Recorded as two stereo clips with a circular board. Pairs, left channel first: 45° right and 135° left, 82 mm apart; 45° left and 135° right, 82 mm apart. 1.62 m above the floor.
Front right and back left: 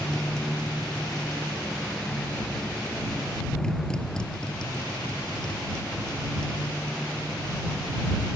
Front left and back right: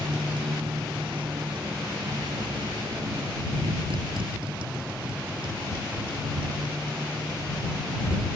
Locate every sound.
0.0 s a motorcycle: 125° right